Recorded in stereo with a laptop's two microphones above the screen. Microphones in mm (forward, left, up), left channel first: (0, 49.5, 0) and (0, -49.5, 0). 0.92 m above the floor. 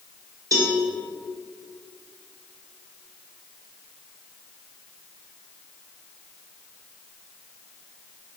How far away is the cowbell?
About 1.7 m.